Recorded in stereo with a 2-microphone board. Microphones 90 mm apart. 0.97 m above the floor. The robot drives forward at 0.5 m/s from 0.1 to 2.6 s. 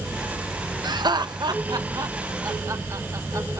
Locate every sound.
0.8 s laughter: 50° right (ahead or behind), 0.8 m; by 3.6 s 35° right (ahead or behind), 1.1 m